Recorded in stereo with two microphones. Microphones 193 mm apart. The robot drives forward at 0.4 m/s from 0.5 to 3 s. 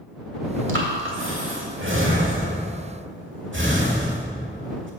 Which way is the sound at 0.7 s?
80° right.